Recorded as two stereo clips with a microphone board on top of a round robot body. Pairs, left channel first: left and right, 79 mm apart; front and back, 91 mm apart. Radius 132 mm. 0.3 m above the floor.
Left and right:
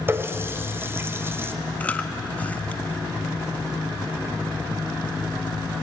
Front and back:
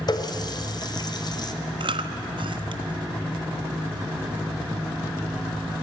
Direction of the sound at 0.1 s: 30° right.